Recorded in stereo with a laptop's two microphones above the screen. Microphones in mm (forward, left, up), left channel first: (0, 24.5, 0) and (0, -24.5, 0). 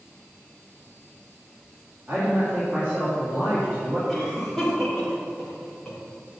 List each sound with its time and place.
2.1 s a man speaking: 35° right (ahead or behind), 2.5 m
4.1 s a cough: 5° left (ahead or behind), 2.5 m